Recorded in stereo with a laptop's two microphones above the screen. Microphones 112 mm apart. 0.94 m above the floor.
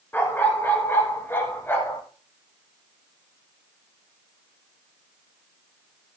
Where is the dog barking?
20° left (ahead or behind), 3.5 m.